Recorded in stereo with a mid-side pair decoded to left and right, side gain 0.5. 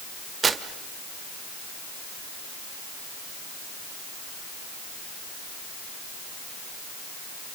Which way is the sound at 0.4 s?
35° right.